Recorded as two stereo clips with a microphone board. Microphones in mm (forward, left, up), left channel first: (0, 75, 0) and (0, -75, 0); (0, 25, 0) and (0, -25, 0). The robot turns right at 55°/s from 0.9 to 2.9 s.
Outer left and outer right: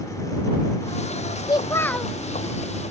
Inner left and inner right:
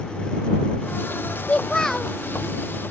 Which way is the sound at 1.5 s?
145° left.